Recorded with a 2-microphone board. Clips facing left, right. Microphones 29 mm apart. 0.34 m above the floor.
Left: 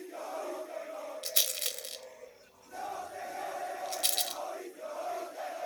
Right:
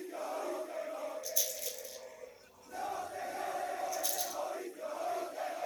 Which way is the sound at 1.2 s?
70° left (ahead or behind).